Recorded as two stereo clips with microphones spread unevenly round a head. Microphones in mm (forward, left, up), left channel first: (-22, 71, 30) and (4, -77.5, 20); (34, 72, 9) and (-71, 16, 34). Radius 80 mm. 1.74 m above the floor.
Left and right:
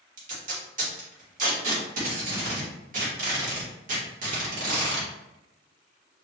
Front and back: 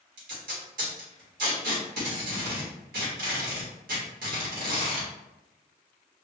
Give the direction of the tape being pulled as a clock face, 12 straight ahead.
4 o'clock.